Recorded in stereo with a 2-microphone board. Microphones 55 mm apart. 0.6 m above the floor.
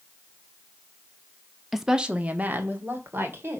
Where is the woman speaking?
Centre (ahead or behind), 0.8 m; by 3.6 s 45° right (ahead or behind), 2 m.